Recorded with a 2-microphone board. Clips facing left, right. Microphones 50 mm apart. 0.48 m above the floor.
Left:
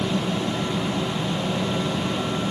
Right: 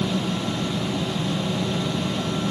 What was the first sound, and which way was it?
Only background noise.